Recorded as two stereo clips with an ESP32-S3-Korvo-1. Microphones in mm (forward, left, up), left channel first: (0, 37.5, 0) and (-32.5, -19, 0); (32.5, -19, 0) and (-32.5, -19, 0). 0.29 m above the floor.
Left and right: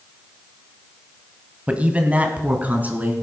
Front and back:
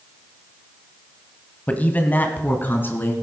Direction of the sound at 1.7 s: 55° right.